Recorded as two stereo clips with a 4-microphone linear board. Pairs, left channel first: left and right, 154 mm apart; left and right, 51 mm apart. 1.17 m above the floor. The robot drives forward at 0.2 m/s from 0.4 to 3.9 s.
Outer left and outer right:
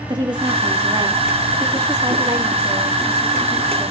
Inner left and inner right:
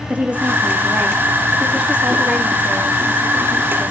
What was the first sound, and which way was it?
A woman speaking, 30° right (ahead or behind).